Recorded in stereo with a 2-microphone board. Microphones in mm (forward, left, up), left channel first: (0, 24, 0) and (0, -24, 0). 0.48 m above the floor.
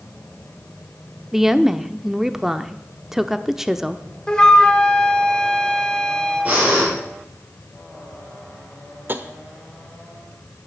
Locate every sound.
1.3 s a woman speaking: 5° right (ahead or behind), 0.7 m
4.3 s a flute: 15° left (ahead or behind), 1.6 m
6.5 s breathing: 35° right (ahead or behind), 9 m
9.1 s tapping: 45° right (ahead or behind), 1.0 m